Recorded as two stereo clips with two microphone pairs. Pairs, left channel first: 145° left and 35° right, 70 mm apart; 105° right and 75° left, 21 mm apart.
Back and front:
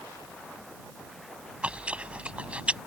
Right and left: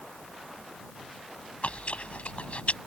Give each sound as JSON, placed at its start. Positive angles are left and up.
{"t": 1.6, "sound": "chewing", "azimuth_deg": -105}